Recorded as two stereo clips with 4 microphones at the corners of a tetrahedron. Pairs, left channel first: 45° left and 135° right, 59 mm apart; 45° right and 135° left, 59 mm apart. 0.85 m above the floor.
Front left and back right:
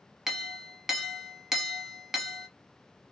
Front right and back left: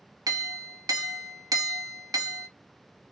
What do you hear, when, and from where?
0.3 s a clink: 140° left, 0.6 m